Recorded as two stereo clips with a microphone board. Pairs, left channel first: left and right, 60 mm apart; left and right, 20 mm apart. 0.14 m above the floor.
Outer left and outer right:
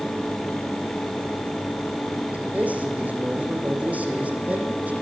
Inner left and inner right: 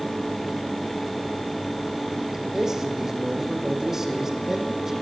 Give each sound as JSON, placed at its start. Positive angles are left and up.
{"t": 2.3, "sound": "a man speaking", "side_deg": -25, "distance_m": 8.5}